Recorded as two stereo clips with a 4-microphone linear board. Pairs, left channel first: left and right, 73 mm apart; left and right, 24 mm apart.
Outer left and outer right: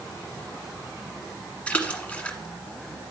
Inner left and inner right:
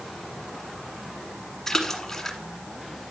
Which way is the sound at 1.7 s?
20° left (ahead or behind).